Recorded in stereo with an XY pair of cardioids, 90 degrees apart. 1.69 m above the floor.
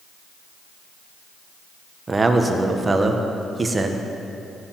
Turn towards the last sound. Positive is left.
turn(degrees=-30)